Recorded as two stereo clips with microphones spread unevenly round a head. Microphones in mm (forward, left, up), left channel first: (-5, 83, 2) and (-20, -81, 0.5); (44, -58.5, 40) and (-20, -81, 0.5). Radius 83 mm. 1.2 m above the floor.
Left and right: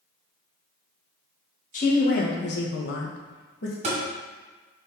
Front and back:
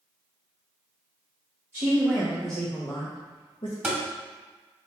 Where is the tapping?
55° right, 1.5 m.